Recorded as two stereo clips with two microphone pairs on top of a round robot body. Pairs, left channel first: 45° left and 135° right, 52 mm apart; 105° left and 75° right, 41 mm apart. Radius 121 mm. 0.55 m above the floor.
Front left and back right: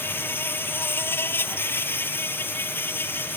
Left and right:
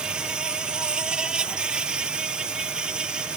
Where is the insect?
5° right.